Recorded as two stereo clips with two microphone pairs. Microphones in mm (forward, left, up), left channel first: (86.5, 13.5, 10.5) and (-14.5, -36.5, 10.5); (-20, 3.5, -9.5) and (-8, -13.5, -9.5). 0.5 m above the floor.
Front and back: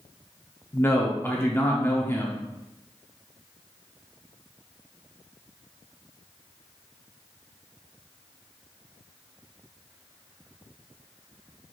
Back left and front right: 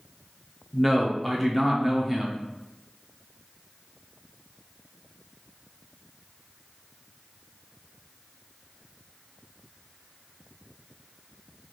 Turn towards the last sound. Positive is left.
turn(degrees=50)